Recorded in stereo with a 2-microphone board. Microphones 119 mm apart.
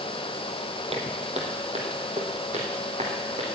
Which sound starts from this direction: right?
Footsteps, at 0.9 s.